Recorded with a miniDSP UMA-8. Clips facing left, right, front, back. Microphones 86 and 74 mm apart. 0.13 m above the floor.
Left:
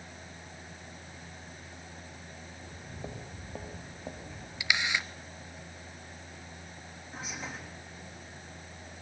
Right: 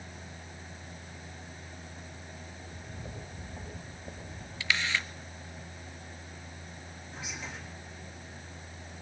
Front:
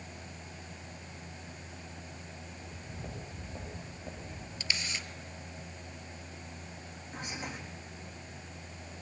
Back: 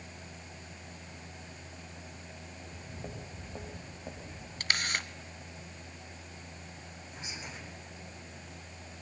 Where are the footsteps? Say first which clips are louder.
Left 1 dB, back 2 dB; 110° left, 6.5 m; by 4.5 s 100° left, 6 m.